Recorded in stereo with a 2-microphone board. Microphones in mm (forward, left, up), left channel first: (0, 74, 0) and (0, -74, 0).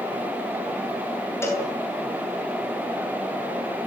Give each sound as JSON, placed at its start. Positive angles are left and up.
{"t": 1.4, "sound": "a cowbell", "side_deg": 15, "distance_m": 7.5}